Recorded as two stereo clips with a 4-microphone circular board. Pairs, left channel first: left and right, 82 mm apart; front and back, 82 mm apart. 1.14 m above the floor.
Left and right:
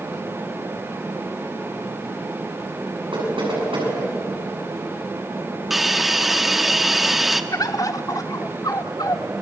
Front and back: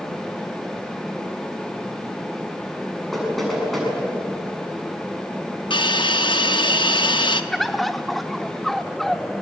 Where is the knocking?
90° right, 7.5 m.